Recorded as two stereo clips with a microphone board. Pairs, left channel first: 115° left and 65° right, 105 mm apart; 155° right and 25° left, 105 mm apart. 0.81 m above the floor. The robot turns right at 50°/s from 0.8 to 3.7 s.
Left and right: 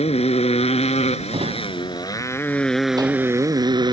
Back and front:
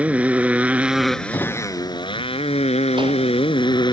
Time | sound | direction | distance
0.0 | a motorcycle | 100° left | ?
1.3 | a drawer | 100° right | ?